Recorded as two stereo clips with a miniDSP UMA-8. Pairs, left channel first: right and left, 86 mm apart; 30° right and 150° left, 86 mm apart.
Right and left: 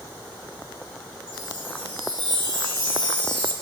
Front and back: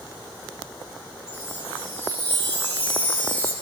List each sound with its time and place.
1.3 s a chime: 90° right, 2.5 m